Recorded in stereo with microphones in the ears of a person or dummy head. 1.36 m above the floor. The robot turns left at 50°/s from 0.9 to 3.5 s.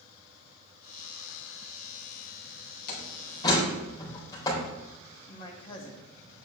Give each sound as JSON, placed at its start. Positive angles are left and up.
{"t": 2.9, "sound": "a door slam", "side_deg": 55, "distance_m": 3.5}
{"t": 5.3, "sound": "a man speaking", "side_deg": 30, "distance_m": 2.0}